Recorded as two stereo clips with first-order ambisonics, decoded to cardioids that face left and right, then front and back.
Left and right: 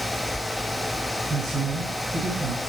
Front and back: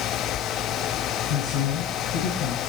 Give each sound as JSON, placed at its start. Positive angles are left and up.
{"t": 1.3, "sound": "a woman speaking", "azimuth_deg": -20, "distance_m": 2.5}